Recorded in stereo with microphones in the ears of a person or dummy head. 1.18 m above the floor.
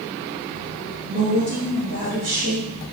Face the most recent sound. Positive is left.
turn(degrees=-85)